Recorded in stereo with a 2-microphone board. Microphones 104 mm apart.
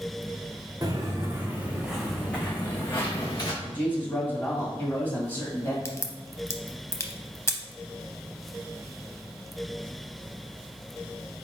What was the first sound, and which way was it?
Footsteps, 35° right (ahead or behind).